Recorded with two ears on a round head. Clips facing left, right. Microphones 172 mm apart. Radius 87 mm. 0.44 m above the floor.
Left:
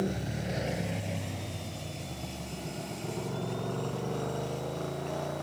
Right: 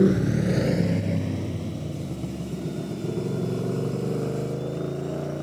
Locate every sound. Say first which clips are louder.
0.0 s a motorcycle: right 13 dB; 80° right; by 5.5 s 35° right (ahead or behind)